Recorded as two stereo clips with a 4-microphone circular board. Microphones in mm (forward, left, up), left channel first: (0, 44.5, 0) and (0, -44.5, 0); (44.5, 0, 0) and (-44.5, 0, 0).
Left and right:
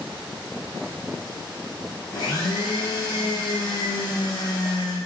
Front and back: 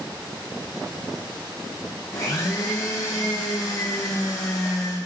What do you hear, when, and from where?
2.1 s a blender: 50° left, 3 m